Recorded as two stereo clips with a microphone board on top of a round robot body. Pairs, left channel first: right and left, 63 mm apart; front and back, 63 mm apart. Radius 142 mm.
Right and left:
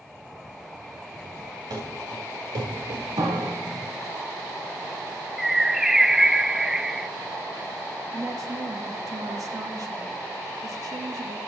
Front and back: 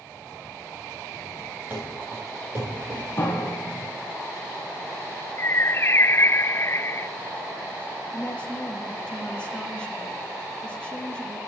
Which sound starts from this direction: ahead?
A bird, at 5.4 s.